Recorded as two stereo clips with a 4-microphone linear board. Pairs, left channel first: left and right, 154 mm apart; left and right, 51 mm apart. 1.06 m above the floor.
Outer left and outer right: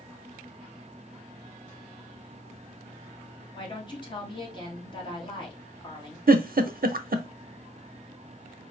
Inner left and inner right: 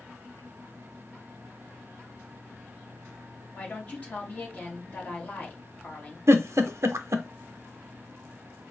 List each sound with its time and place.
3.5 s a woman speaking: 30° left (ahead or behind), 1.6 m
6.3 s a giggle: 70° right (ahead or behind), 0.5 m